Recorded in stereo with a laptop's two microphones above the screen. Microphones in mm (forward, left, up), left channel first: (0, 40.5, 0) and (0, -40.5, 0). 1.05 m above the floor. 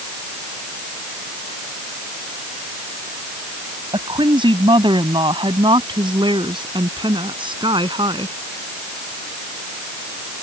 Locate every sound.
3.9 s a woman speaking: 85° right; by 8.3 s 80° right